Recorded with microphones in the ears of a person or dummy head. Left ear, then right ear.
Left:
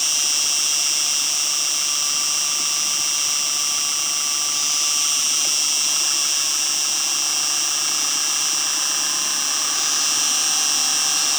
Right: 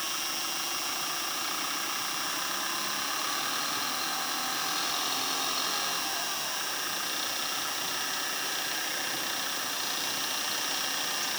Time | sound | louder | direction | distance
0.0 | an insect | left 12 dB | 35° left (ahead or behind) | ?